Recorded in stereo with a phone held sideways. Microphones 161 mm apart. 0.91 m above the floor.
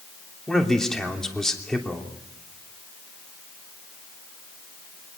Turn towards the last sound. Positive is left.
turn(degrees=5)  # may be behind; listen again after turning